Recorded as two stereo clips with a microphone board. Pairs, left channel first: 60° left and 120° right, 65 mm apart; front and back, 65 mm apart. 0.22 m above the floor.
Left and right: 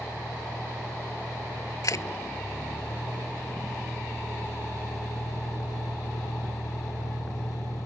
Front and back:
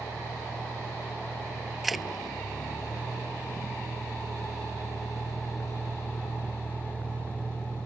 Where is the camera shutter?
90° left.